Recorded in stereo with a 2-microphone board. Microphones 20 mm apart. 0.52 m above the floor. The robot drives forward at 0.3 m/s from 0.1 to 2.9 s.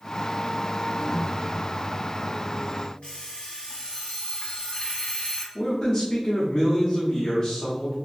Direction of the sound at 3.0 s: 80° left.